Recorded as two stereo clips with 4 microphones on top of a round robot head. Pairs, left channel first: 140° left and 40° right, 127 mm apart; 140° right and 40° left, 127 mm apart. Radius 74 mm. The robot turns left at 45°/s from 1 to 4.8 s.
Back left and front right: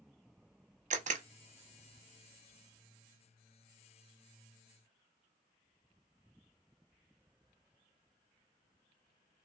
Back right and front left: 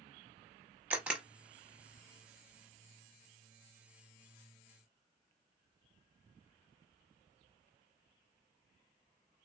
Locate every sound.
0.9 s a camera shutter: 40° right, 0.7 m; by 1.2 s 50° right, 0.7 m